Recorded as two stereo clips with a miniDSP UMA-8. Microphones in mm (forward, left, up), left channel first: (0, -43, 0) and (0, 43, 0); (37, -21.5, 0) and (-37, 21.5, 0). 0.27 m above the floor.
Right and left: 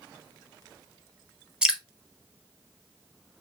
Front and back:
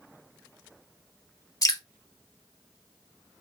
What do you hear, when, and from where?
1.6 s dripping: 10° left, 0.9 m